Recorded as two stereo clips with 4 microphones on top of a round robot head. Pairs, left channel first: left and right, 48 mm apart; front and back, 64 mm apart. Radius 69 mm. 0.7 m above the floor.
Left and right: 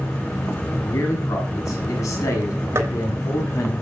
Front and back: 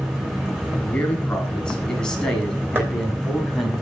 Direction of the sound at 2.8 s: 120° right.